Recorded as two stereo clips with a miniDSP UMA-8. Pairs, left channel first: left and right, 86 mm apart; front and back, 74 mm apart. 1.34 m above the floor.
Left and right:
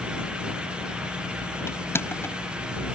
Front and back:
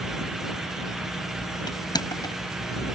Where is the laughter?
No laughter in this recording.